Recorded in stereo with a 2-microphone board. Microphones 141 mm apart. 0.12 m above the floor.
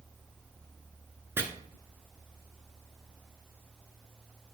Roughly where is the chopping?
Centre.